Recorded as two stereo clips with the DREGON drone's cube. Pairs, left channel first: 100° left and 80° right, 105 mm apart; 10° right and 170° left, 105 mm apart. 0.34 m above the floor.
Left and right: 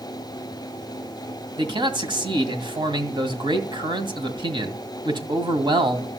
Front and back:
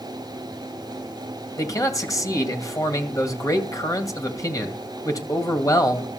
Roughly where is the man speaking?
Ahead right.